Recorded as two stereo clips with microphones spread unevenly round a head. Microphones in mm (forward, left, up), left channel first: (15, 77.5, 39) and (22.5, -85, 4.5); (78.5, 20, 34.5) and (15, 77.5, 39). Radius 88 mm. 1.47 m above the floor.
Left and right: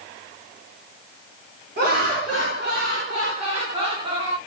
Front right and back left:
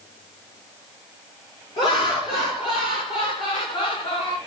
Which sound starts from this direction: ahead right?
Laughter, at 1.8 s.